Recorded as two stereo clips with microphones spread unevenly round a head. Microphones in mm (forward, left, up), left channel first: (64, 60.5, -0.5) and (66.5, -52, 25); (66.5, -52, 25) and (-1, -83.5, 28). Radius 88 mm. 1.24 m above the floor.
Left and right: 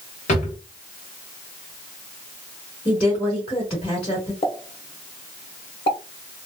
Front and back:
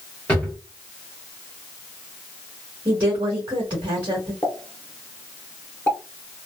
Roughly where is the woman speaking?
Behind left.